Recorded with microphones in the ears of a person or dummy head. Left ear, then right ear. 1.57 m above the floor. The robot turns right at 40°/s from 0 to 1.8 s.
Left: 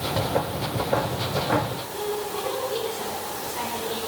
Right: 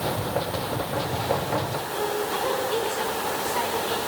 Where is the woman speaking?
50° right (ahead or behind), 7 m.